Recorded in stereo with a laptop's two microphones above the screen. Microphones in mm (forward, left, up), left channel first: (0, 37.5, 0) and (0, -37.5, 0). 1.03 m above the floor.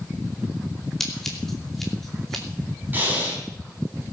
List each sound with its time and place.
1.0 s scissors: 5° left (ahead or behind), 2.5 m
2.9 s breathing: 25° right (ahead or behind), 3.5 m